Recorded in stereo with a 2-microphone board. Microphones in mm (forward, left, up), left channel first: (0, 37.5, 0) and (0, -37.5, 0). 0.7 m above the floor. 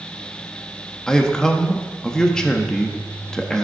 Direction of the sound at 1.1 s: 10° left (ahead or behind).